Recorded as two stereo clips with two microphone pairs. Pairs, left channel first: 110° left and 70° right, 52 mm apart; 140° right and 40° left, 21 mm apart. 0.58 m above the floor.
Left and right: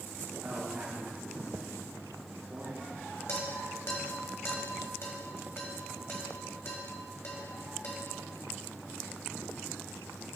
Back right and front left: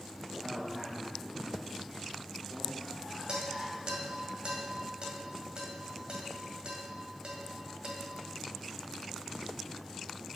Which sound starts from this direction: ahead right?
A man speaking, at 0.3 s.